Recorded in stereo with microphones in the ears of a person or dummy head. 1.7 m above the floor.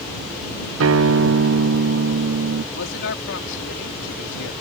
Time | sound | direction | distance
0.8 | a guitar | 85° right | ?
2.7 | a man speaking | 75° left (ahead or behind) | ?